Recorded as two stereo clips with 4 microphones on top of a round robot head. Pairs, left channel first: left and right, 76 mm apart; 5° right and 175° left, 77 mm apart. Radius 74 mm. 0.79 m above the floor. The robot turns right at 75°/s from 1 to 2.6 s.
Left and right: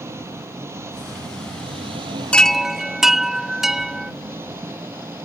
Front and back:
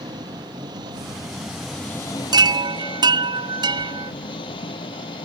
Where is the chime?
165° left; by 4.1 s 175° right.